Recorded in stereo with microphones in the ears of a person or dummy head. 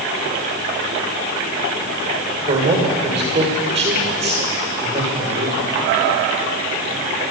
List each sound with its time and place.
2.5 s a man speaking: 35° right (ahead or behind), 5 m